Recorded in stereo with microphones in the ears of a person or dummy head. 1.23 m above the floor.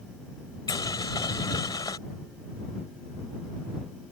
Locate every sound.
0.7 s boiling: 20° left (ahead or behind)